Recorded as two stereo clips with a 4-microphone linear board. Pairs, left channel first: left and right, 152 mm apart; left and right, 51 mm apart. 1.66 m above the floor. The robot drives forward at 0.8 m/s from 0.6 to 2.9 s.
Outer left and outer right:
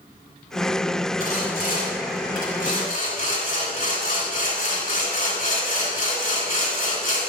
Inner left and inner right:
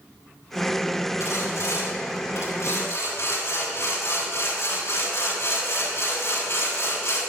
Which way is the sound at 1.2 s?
75° left (ahead or behind).